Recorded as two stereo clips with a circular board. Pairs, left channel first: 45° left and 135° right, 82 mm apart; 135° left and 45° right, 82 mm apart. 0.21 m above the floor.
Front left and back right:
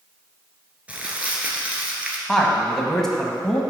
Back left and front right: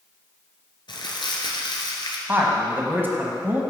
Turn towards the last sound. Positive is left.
turn(degrees=-30)